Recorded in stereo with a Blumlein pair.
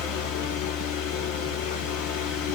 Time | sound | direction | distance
0.0 | a fan | 45° left | 0.8 m